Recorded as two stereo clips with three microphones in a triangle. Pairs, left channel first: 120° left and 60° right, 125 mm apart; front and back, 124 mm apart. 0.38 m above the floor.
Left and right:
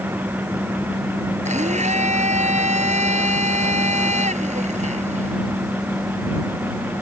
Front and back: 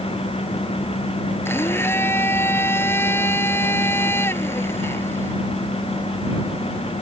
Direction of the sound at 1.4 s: 70° right.